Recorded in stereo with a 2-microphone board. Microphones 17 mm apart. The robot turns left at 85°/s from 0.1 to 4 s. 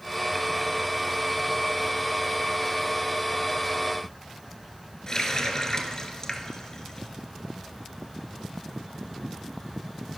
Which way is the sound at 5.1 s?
35° left (ahead or behind).